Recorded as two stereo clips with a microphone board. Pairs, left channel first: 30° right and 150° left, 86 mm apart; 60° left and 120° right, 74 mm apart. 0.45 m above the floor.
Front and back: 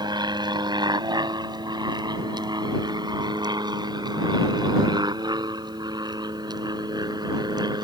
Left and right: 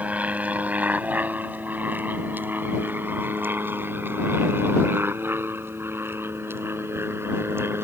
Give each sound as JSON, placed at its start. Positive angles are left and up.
{"t": 0.0, "sound": "an aircraft", "azimuth_deg": 170}